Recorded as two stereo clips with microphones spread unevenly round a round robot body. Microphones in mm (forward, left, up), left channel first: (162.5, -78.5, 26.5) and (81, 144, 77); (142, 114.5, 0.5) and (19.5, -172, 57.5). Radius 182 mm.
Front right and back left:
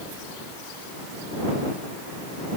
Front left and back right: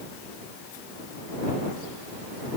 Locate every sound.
Only background noise.